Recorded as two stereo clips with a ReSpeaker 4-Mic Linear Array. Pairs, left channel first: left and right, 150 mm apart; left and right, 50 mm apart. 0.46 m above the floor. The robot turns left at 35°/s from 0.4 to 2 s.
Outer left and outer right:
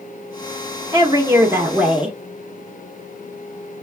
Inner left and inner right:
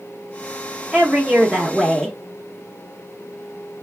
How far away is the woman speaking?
About 0.8 m.